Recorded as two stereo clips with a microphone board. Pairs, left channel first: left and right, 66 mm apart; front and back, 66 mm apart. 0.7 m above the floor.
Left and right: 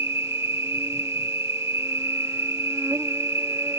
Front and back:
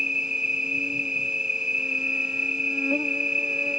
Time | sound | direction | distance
0.0 | an insect | 105° right | ?